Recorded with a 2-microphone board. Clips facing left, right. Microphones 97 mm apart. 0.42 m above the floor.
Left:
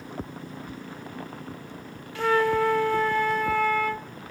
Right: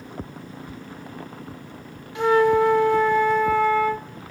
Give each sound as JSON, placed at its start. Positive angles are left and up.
{"t": 2.1, "sound": "a flute", "side_deg": -20, "distance_m": 0.7}